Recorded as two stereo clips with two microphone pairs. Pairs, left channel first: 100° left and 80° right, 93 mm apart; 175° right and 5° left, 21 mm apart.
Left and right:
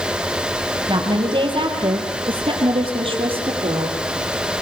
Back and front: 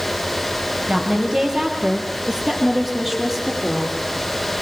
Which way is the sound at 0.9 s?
50° right.